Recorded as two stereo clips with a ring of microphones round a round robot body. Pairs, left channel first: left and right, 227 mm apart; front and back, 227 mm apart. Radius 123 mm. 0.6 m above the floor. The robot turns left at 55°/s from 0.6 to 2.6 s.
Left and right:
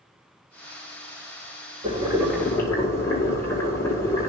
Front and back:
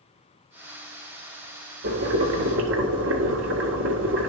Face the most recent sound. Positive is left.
turn(degrees=165)